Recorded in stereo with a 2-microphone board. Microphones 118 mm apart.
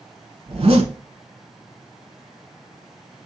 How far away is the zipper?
About 0.9 m.